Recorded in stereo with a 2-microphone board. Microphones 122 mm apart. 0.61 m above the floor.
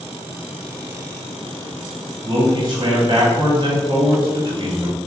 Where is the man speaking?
40° right (ahead or behind), 1.5 m.